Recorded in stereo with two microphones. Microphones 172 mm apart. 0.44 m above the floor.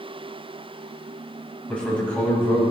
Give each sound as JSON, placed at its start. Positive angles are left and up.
{"t": 1.7, "sound": "a man speaking", "side_deg": 5, "distance_m": 3.5}